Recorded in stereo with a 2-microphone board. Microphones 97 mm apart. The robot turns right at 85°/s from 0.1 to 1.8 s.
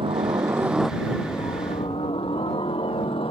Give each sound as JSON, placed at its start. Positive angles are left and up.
{"t": 0.0, "sound": "a helicopter", "azimuth_deg": -65}